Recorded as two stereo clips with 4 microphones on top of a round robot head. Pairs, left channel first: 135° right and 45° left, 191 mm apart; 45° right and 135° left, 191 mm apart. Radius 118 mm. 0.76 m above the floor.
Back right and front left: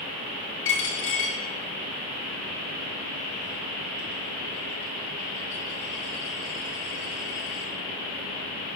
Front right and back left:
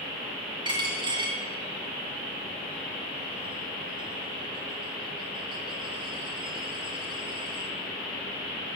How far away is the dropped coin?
About 1.8 m.